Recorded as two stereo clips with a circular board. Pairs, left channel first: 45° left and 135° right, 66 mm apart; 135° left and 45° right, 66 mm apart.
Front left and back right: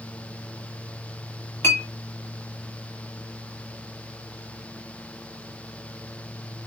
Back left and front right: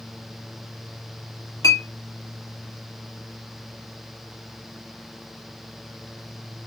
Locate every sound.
1.6 s a clink: 100° left, 1.9 m